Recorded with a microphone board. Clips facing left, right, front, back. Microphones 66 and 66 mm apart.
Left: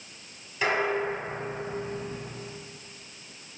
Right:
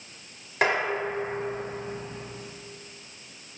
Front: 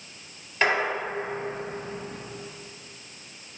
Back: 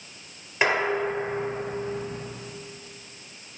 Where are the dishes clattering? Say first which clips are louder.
Right 1 dB, back 1 dB; 105° right, 2 m.